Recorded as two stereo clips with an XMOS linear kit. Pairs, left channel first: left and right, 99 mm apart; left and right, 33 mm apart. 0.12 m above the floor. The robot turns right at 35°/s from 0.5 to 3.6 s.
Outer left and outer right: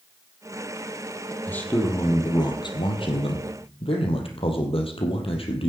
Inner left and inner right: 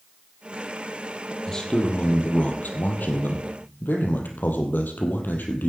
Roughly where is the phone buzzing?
No phone buzzing in this recording.